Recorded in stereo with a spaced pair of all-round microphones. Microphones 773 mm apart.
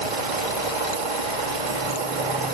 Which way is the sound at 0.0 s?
75° right (ahead or behind).